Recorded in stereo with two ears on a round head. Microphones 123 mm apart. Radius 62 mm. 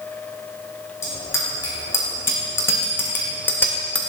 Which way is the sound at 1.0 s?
20° left (ahead or behind).